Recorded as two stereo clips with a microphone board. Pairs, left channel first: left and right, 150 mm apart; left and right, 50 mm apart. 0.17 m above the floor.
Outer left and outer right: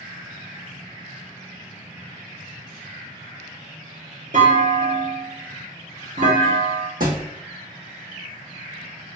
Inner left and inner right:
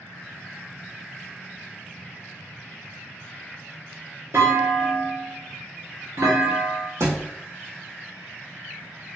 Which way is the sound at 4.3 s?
55° right (ahead or behind).